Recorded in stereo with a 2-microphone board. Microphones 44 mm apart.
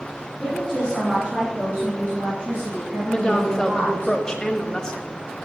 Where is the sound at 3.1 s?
15° left (ahead or behind), 1.1 m.